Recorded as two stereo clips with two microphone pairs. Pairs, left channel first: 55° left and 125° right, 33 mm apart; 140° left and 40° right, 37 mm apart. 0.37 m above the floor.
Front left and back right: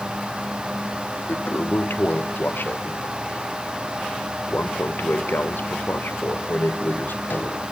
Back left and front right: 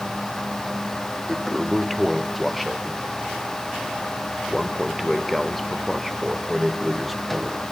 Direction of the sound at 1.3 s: 55° left.